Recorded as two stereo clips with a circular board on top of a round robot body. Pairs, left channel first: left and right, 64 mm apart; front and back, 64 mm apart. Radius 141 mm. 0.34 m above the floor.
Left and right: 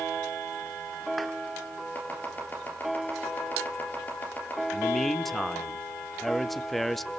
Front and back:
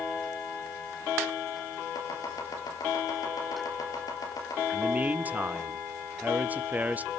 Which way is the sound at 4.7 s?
175° left.